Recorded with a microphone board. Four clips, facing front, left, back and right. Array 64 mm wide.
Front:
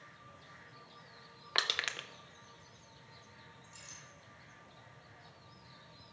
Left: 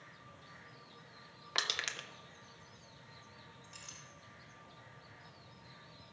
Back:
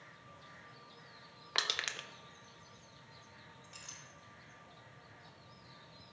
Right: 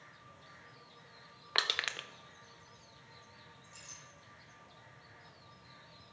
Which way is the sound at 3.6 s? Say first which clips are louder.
Left 1 dB, back 1 dB; 150° left.